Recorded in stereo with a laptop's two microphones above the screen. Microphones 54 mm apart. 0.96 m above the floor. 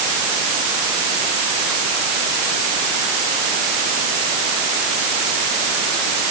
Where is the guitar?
No guitar in this recording.